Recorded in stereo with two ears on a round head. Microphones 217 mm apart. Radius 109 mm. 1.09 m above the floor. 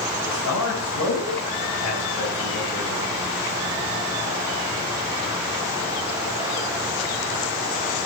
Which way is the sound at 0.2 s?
85° left.